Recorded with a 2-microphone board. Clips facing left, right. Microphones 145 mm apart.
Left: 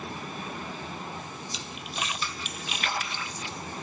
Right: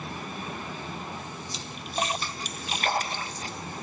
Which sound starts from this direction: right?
A splash, at 1.5 s.